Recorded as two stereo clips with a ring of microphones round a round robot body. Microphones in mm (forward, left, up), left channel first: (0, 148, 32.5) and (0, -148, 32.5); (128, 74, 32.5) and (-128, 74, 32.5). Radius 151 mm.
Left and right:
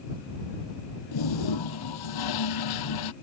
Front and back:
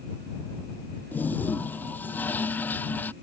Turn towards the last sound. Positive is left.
turn(degrees=85)